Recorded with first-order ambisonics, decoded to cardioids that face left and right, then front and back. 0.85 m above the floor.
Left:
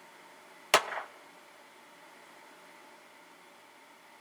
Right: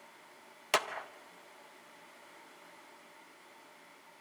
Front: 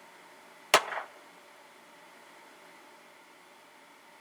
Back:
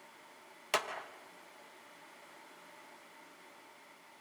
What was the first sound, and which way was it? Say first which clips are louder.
A clap: left 5 dB, front 10 dB; 30° left.